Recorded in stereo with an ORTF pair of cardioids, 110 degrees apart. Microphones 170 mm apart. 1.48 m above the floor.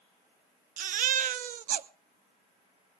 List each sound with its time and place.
0.8 s a baby crying: 55° right, 0.8 m